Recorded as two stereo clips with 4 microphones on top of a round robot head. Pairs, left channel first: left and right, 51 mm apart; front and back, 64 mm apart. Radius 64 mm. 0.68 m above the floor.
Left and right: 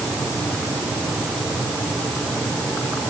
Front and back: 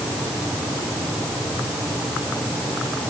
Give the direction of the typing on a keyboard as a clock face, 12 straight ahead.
I don't hear typing on a keyboard.